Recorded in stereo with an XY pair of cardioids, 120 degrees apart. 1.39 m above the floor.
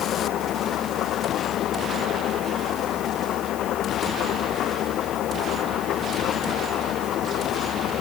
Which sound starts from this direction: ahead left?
An engine running, at 0.0 s.